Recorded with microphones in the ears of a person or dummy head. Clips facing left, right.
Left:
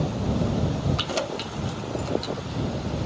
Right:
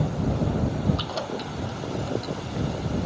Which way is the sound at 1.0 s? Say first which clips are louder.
Left 2 dB; 35° left (ahead or behind).